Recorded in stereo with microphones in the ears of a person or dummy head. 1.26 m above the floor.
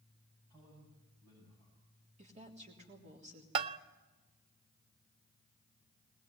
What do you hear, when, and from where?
0.5 s a man speaking: 30° right (ahead or behind), 7 m
2.2 s a woman speaking: 40° right (ahead or behind), 3 m
3.5 s a bell: 30° right (ahead or behind), 0.6 m